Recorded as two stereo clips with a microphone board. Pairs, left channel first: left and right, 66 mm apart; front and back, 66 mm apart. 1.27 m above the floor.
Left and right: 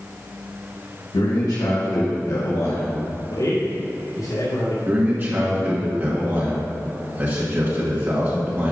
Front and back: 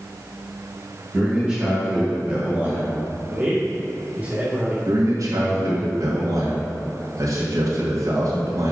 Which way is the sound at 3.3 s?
115° left.